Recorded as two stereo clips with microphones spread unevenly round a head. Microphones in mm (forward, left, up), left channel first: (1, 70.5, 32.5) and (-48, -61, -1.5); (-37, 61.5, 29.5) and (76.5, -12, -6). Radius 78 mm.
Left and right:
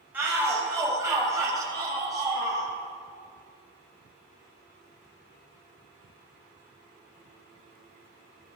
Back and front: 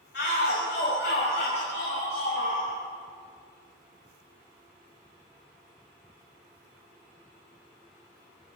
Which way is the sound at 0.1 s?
170° left.